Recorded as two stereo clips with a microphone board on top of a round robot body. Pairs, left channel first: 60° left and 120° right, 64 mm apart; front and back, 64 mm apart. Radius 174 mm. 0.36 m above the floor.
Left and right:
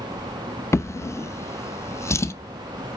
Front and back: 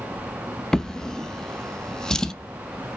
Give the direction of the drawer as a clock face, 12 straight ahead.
9 o'clock.